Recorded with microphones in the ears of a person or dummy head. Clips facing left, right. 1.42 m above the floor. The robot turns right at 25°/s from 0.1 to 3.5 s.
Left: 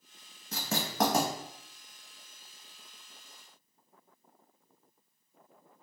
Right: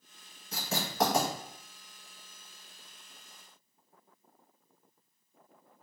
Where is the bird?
I don't hear a bird.